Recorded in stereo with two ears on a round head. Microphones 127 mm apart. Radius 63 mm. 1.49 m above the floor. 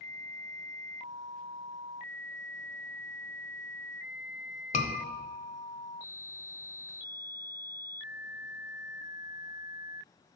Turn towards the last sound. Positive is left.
turn(degrees=55)  # may be behind; listen again after turning